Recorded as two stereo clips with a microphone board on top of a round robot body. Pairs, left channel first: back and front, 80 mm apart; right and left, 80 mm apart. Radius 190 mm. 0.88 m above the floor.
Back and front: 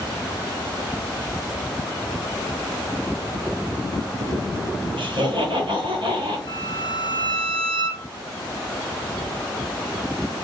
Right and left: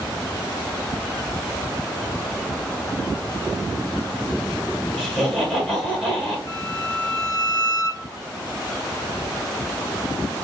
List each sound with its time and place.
5.0 s laughter: 5° left, 1.6 m
6.5 s a violin: 145° right, 0.9 m